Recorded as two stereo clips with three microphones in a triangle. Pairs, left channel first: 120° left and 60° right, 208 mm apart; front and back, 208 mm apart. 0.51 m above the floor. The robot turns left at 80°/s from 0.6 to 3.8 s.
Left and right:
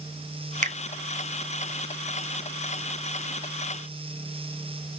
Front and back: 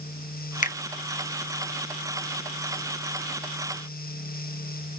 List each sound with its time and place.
0.6 s a finger snap: 25° right, 0.8 m; by 0.8 s 35° right, 0.8 m